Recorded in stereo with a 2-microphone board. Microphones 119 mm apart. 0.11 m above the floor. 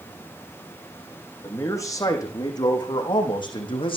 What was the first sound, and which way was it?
A man speaking, 25° left (ahead or behind).